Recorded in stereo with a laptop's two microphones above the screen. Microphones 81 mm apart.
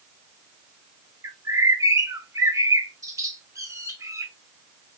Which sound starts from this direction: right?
A bird, at 1.2 s.